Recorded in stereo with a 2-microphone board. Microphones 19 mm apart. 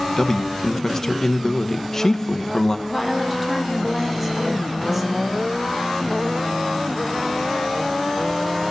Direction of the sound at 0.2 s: 25° left (ahead or behind).